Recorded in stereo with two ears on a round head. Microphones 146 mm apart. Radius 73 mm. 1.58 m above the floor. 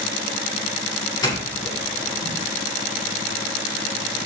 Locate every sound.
1.2 s a doorbell: 30° left (ahead or behind), 7.5 m